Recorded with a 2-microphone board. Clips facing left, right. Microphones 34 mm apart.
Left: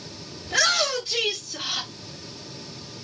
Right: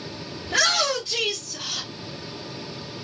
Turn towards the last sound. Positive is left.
turn(degrees=30)  # may be behind; listen again after turning